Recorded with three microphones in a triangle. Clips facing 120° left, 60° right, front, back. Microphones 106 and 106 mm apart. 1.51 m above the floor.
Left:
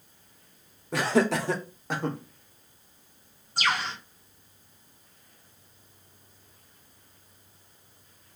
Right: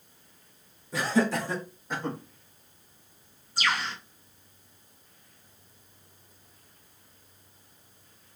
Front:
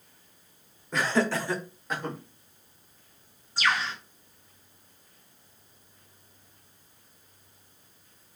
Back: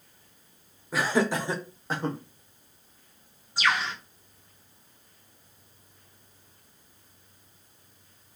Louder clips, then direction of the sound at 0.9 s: Left 2 dB, back 1 dB; 95° left.